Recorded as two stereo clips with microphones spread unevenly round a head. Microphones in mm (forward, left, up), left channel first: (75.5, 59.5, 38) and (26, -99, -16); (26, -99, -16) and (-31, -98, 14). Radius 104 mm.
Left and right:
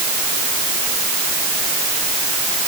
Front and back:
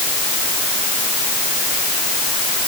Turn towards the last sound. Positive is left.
No sound to turn to.